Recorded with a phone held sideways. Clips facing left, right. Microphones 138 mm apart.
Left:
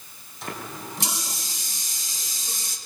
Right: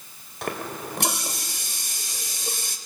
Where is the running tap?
65° right (ahead or behind), 3 m.